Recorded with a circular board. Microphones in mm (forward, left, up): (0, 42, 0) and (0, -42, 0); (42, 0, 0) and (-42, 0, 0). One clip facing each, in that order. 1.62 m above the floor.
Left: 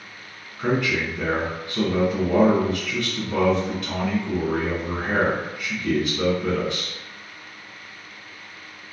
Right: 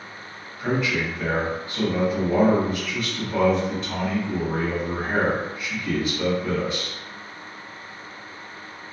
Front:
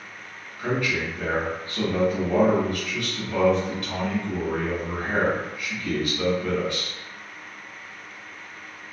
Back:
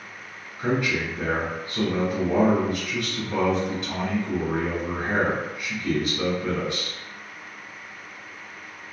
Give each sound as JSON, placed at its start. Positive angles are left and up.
{"t": 0.6, "sound": "a man speaking", "azimuth_deg": 115, "distance_m": 1.6}